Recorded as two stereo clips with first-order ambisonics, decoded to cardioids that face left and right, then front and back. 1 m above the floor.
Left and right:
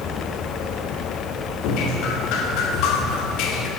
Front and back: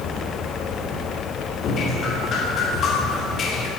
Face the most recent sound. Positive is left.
turn(degrees=60)